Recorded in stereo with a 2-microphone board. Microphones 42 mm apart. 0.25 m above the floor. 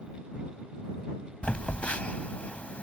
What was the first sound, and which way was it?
A phone buzzing, 30° left (ahead or behind).